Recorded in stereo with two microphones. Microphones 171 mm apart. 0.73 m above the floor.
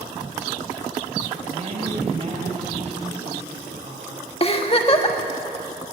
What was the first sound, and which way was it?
A woman speaking, 45° right (ahead or behind).